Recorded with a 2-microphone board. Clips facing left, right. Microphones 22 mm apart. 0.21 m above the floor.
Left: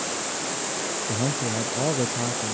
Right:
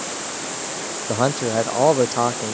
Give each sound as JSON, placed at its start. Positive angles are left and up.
{"t": 1.1, "sound": "a man speaking", "side_deg": -80}